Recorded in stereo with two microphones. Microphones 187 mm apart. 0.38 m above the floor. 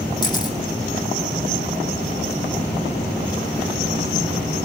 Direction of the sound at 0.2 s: 20° left (ahead or behind).